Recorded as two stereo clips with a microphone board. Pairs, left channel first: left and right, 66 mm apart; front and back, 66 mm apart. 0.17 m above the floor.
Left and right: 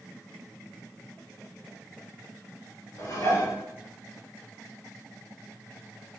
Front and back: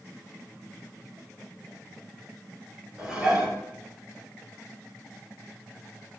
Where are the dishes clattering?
105° left, 1.6 m.